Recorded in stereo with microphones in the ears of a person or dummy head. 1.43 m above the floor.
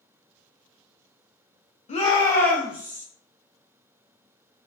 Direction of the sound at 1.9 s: 35° left (ahead or behind).